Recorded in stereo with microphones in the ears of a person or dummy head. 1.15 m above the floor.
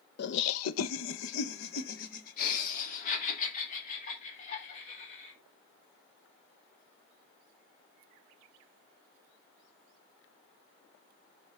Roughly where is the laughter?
Left.